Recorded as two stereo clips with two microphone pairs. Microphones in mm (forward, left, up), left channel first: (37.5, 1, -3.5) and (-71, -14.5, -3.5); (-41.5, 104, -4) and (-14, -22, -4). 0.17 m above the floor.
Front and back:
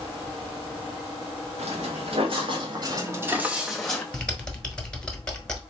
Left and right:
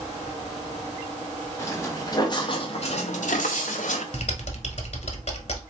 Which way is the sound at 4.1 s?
90° left.